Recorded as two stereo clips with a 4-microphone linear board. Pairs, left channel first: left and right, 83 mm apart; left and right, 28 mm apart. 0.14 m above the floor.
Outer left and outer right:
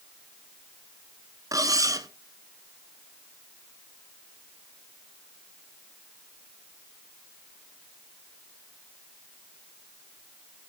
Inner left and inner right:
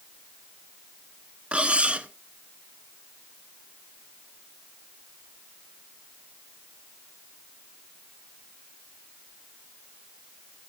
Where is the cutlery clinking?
45° right (ahead or behind), 1.0 m.